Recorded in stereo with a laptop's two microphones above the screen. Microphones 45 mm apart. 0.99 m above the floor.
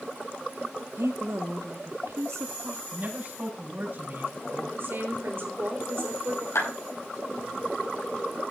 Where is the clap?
85° left, 7.5 m.